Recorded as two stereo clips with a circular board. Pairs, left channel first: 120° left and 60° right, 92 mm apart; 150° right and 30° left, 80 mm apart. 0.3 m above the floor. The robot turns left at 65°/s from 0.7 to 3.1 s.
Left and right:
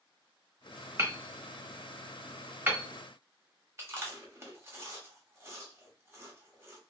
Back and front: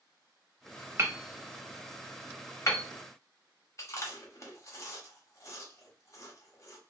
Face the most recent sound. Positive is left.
turn(degrees=-115)